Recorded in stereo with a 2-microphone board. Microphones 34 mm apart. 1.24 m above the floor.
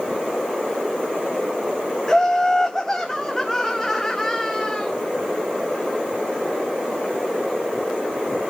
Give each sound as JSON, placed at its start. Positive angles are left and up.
{"t": 2.1, "sound": "laughter", "side_deg": 10, "distance_m": 0.8}